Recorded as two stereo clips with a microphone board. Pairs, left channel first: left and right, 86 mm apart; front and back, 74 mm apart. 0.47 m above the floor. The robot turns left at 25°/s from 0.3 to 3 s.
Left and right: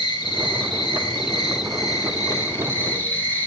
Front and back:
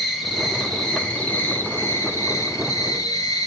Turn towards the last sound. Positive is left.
turn(degrees=25)